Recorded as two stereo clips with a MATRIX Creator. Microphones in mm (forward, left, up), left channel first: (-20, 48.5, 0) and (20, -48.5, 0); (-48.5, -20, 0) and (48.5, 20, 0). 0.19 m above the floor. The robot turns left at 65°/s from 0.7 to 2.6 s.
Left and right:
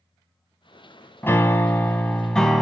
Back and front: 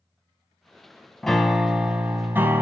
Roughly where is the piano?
Behind left.